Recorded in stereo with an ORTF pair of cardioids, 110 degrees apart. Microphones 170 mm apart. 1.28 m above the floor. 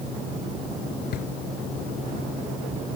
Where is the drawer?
60° left.